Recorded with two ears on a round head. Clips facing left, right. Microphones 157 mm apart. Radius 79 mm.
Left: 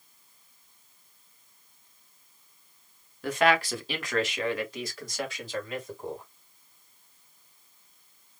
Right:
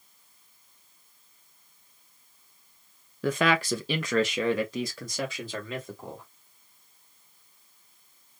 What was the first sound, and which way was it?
A man speaking, 65° right (ahead or behind).